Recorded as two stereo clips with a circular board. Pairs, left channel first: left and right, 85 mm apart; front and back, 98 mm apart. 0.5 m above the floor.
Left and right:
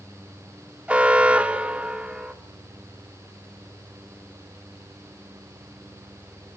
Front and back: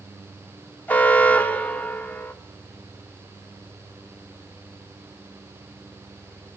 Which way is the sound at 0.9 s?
40° right.